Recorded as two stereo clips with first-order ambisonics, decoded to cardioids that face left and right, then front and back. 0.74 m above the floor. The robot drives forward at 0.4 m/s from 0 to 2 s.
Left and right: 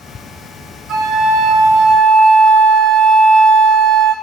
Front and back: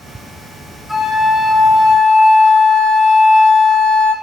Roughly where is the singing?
No singing in this recording.